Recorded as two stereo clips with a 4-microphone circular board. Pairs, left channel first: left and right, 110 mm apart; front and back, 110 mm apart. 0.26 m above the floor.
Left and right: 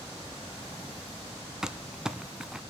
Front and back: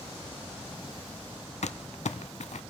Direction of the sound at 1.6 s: 5° right.